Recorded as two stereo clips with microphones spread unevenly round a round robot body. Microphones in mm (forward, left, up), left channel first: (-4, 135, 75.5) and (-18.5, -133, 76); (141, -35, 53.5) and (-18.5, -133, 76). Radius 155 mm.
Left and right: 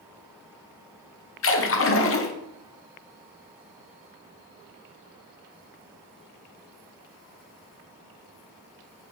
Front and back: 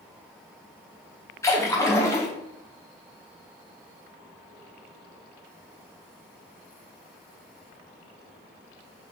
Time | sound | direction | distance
1.4 | a splash | 95° left | 0.9 m